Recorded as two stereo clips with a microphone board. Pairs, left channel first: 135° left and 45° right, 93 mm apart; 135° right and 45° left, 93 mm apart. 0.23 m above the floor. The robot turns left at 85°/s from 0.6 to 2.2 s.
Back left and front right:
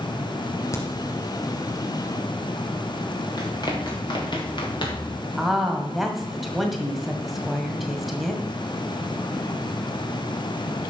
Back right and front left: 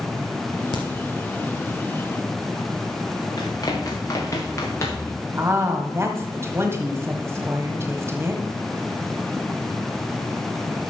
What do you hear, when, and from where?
0.7 s a crack: 170° right, 2.5 m; by 0.8 s straight behind, 2.5 m
3.4 s running footsteps: straight behind, 3.5 m; by 5.1 s 165° left, 3.5 m
5.4 s a woman speaking: 40° left, 1.6 m